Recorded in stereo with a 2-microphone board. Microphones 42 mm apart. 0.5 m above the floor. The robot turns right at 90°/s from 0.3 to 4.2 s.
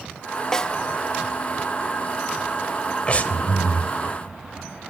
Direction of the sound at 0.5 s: 15° left (ahead or behind).